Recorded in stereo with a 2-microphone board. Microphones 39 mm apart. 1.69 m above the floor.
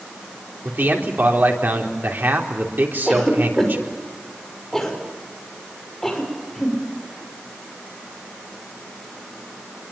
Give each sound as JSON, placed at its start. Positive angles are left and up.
{"t": 0.7, "sound": "a man speaking", "side_deg": -60, "distance_m": 4.0}
{"t": 3.1, "sound": "a cough", "side_deg": 5, "distance_m": 6.0}